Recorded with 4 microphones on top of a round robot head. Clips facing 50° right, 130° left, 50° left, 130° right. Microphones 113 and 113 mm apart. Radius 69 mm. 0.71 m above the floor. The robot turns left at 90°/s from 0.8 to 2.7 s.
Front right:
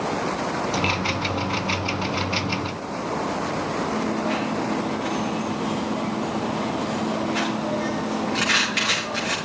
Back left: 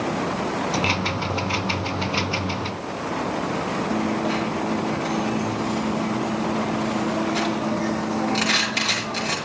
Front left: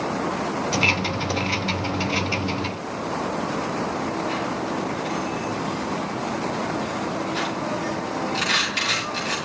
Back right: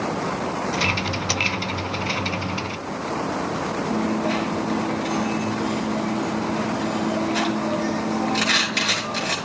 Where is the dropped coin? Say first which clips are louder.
Back left 3 dB, back right 3 dB; 170° right, 6 m.